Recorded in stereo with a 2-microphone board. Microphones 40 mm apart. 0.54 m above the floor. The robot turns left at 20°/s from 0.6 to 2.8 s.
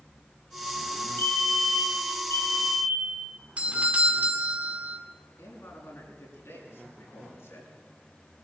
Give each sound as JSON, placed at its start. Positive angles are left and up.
{"t": 1.2, "sound": "a fire alarm", "azimuth_deg": 120, "distance_m": 4.5}
{"t": 3.6, "sound": "a doorbell", "side_deg": -30, "distance_m": 2.0}
{"t": 5.4, "sound": "a man speaking", "side_deg": 75, "distance_m": 7.0}